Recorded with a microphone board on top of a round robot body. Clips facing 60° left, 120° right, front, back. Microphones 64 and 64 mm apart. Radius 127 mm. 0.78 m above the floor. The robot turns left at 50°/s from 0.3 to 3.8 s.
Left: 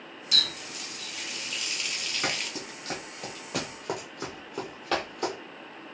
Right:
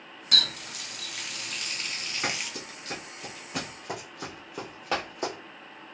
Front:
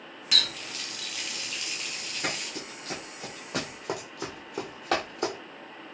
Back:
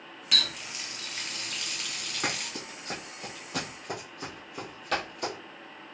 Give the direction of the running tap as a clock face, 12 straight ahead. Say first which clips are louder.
Right 2 dB, front 1 dB; 3 o'clock.